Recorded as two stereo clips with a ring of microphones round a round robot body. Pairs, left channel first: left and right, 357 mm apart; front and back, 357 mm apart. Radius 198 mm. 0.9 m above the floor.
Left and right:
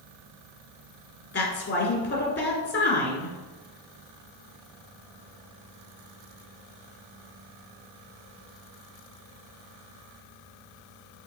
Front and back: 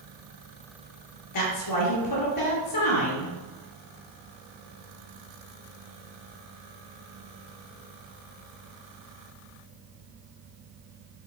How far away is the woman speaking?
About 2.5 m.